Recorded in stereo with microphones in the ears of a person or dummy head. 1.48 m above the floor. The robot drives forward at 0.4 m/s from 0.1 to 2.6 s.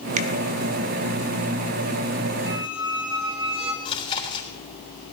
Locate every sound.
0.2 s a finger snap: 40° right (ahead or behind), 1.4 m
2.5 s a squeak: 15° right (ahead or behind), 0.7 m
3.9 s chewing: 30° left (ahead or behind), 3.5 m